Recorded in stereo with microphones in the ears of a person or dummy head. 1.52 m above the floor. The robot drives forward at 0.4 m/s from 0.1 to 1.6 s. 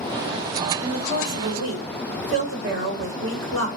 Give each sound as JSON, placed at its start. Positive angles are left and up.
{"t": 0.8, "sound": "a woman speaking", "side_deg": -70, "distance_m": 1.7}